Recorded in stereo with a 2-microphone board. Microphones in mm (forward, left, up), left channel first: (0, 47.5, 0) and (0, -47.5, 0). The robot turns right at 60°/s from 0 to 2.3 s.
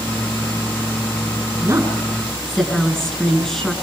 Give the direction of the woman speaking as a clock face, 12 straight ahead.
1 o'clock.